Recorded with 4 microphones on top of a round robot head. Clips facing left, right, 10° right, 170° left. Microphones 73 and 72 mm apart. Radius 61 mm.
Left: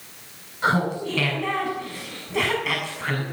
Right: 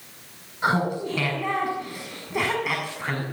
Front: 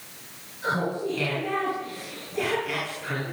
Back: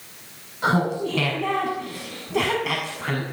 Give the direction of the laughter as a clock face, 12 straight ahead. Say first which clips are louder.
Left 1 dB, back 5 dB; 6 o'clock.